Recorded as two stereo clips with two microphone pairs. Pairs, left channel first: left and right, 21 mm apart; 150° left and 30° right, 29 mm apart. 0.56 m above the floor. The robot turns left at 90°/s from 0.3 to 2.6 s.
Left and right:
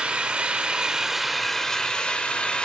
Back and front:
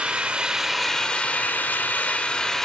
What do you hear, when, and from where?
0.0 s an engine running: 80° right, 0.8 m; by 2.6 s 70° left, 0.8 m